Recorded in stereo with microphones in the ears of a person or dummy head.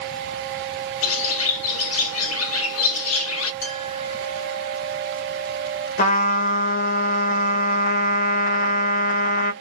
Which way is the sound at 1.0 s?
85° left.